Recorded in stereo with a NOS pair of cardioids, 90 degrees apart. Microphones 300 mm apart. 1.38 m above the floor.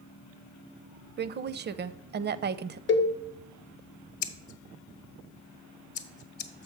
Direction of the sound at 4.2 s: 65° left.